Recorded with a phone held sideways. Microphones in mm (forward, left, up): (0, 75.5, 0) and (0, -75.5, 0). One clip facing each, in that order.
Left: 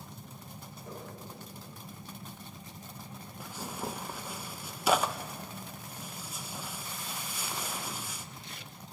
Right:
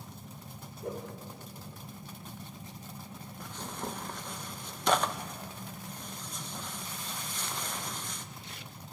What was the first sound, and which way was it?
A whoosh, 70° right (ahead or behind).